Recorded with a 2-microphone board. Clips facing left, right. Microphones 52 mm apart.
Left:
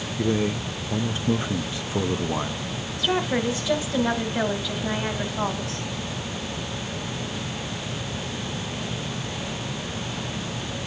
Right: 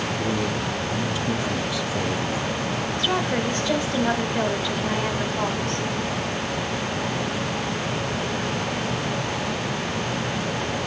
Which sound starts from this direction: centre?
A woman speaking, at 3.0 s.